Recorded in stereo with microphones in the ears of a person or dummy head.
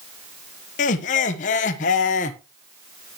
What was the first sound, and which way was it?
Laughter, 40° left (ahead or behind).